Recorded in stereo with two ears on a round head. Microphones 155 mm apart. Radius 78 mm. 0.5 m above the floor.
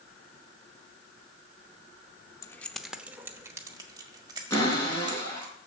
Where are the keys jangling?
20° left (ahead or behind), 0.5 m; by 5.5 s 30° right (ahead or behind), 2.5 m.